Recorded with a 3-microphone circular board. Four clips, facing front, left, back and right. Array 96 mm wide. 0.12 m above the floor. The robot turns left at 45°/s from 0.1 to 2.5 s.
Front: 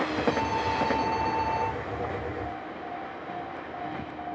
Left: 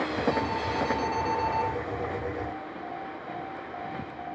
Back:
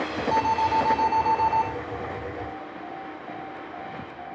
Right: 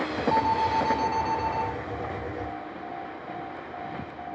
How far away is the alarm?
About 4.5 m.